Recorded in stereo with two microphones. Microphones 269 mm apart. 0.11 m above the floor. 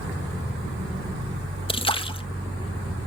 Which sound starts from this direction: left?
A splash, at 1.7 s.